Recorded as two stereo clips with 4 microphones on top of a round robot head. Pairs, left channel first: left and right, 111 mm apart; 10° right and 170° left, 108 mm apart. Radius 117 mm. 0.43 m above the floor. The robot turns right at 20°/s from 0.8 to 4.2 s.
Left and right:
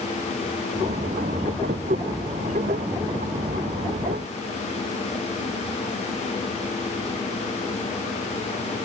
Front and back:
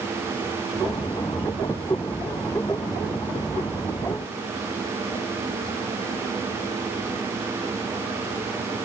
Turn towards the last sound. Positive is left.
No sound to turn to.